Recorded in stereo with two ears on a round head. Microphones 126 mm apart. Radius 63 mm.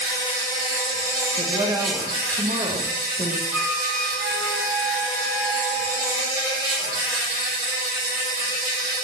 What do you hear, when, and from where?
0.0 s an insect: 25° right (ahead or behind), 4 m
1.4 s a woman speaking: 30° right (ahead or behind), 0.9 m
3.5 s a flute: centre (ahead or behind), 1.1 m